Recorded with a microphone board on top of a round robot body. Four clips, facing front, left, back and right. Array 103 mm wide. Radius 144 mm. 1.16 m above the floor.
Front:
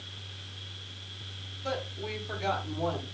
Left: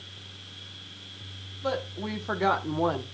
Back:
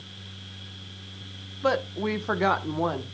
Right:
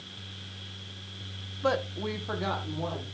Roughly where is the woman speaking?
Behind right.